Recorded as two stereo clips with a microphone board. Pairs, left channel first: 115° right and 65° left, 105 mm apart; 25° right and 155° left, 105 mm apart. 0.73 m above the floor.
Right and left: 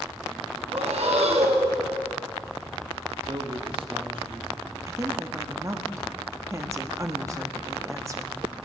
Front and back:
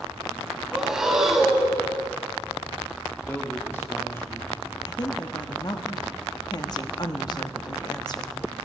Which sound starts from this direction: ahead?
A woman speaking, at 4.9 s.